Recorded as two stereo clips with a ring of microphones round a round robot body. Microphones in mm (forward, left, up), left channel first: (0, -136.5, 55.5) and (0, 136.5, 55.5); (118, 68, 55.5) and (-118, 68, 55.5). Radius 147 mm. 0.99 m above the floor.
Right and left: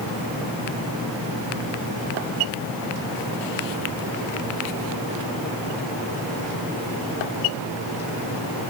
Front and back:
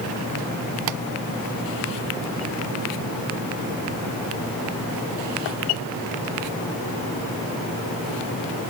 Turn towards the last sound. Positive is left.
No sound to turn to.